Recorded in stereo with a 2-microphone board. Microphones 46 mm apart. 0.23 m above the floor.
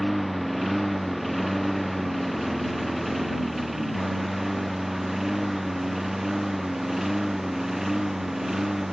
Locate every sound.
0.0 s a lawn mower: centre (ahead or behind); by 8.9 s 5° right (ahead or behind)